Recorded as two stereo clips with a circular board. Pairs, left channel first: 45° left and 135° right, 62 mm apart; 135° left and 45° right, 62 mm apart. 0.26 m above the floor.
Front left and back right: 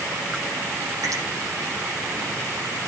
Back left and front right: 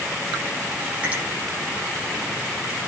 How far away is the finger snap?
About 9 m.